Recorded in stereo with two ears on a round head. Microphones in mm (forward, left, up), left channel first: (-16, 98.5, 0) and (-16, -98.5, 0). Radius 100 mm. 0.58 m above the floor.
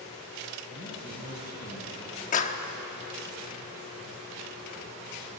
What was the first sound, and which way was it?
A man speaking, 50° left (ahead or behind).